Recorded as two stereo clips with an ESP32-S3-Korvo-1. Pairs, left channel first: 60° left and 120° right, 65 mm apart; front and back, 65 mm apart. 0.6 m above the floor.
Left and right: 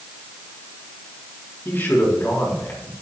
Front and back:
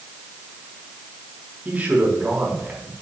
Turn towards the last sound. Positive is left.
turn(degrees=115)